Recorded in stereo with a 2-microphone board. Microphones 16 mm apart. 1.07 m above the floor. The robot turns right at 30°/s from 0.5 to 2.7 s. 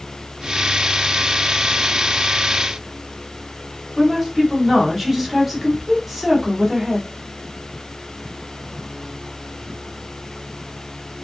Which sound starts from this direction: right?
A woman speaking, at 4.0 s.